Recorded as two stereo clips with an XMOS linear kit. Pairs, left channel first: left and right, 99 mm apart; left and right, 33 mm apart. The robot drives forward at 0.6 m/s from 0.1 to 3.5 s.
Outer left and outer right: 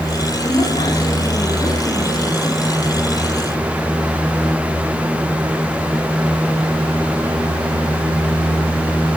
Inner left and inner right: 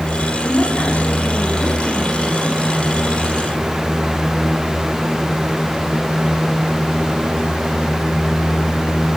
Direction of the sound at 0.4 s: 55° left (ahead or behind).